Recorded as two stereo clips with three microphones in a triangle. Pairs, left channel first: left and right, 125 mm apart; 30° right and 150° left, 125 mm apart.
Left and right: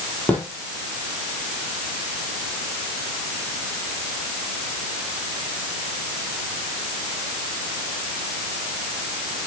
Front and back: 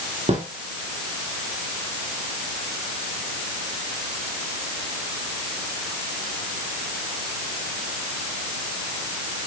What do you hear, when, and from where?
0.3 s a snare drum: 165° left, 4.5 m